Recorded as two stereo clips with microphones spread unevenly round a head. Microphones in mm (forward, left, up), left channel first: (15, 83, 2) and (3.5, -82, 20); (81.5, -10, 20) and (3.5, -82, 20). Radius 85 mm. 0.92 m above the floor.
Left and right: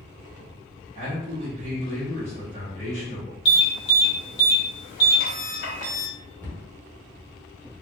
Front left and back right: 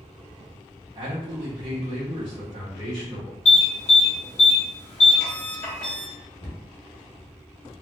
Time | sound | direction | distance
0.9 | a man speaking | 150° right | 1.1 m
3.5 | an alarm | 80° left | 1.3 m
6.4 | a cupboard door | 10° left | 1.3 m